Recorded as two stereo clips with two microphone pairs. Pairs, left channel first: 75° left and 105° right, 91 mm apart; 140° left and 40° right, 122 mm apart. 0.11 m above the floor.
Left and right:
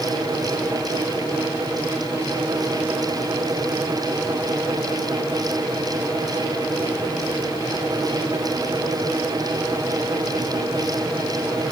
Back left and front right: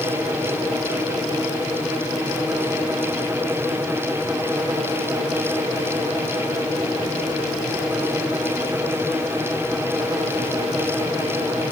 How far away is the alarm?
No alarm in this recording.